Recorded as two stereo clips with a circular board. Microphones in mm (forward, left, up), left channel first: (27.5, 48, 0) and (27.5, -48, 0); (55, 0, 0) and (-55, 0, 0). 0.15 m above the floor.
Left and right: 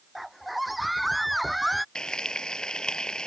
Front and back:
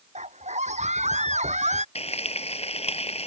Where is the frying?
10° left.